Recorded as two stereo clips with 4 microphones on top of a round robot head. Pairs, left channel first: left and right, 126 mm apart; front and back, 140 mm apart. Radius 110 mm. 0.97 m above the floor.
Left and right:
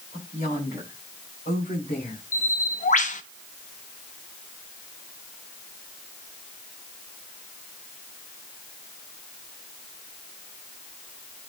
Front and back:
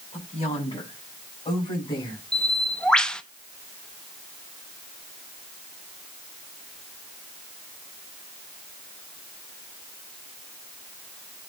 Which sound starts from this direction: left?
A bird, at 2.3 s.